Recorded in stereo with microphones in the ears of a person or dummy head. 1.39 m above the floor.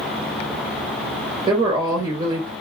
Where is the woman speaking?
30° right (ahead or behind), 1.2 m.